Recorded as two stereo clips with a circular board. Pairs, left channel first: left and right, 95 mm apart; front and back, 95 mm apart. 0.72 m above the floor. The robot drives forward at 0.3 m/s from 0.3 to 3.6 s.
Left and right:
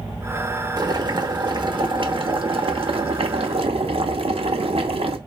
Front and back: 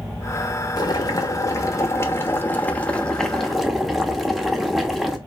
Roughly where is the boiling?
Ahead right.